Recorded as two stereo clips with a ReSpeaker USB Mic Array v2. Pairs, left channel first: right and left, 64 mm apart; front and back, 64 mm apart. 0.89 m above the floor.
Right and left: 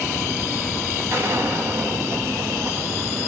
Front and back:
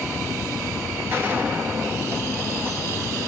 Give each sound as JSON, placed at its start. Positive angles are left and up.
{"t": 1.1, "sound": "a gunshot", "azimuth_deg": 130, "distance_m": 1.6}